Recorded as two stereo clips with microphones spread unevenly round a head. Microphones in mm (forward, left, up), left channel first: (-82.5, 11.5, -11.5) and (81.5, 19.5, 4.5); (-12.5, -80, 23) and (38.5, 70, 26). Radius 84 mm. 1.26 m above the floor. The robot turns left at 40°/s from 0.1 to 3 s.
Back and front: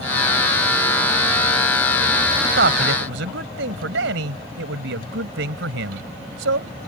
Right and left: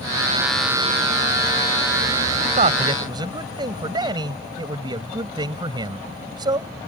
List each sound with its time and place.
2.4 s a man speaking: 30° left; by 6.7 s 10° left